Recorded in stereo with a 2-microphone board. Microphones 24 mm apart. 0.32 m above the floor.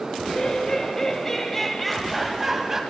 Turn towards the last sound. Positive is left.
turn(degrees=-15)  # may be behind; listen again after turning